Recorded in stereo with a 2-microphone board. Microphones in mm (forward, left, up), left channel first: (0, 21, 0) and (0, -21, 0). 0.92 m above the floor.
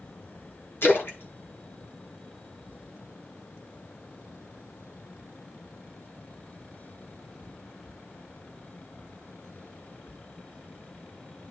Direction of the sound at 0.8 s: 60° left (ahead or behind).